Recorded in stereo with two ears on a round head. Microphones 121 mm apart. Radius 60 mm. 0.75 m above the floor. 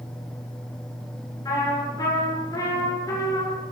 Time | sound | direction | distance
1.4 | a trumpet | 25° left (ahead or behind) | 7 m